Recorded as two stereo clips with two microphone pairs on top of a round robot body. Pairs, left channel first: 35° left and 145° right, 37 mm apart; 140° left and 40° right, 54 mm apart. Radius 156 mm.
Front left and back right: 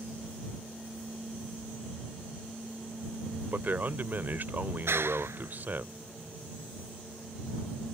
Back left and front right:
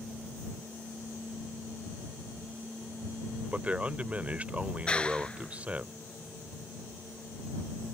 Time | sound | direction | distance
3.5 | a man speaking | 110° right | ?
4.9 | a clap | 150° right | ?